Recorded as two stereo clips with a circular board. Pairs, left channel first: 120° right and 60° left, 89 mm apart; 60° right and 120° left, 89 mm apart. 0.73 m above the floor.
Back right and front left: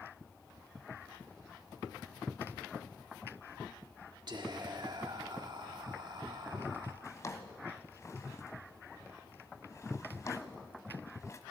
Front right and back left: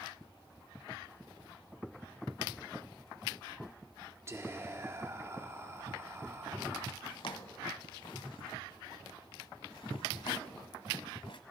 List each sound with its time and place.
4.3 s whispering: 65° left, 2 m
7.0 s a drawer: 70° right, 1.2 m